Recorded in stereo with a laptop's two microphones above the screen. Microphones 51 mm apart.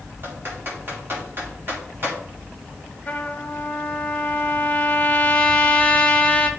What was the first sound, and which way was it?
Typing on a keyboard, 45° right (ahead or behind).